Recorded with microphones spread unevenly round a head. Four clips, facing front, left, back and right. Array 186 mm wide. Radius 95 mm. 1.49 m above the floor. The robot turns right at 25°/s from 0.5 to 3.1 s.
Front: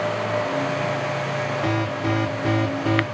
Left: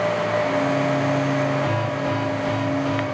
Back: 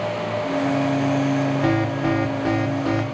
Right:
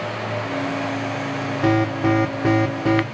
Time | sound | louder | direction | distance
1.6 | an alarm | right 5 dB, back 3 dB | 120° right | 2.5 m